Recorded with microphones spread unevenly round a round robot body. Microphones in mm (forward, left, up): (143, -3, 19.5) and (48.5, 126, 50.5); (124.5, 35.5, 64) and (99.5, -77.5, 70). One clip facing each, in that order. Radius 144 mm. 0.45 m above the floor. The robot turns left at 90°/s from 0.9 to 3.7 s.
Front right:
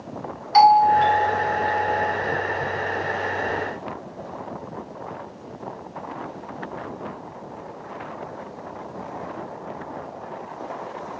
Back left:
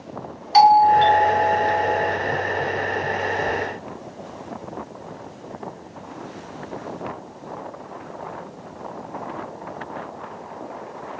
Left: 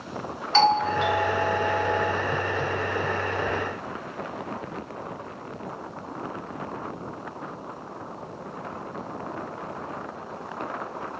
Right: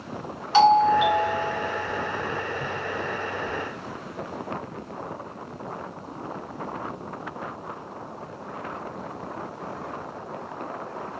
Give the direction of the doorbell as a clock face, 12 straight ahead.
6 o'clock.